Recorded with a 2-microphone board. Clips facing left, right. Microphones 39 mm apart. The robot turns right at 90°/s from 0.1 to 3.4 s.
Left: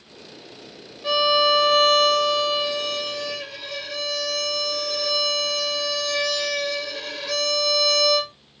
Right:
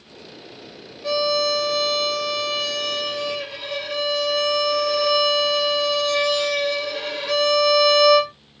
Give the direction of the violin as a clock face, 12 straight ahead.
12 o'clock.